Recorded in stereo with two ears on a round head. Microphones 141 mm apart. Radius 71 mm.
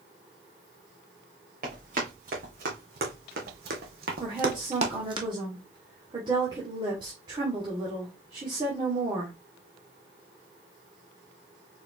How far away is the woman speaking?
About 1.6 m.